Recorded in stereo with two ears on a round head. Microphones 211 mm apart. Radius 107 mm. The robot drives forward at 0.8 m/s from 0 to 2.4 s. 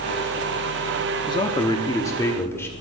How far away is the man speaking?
About 0.6 m.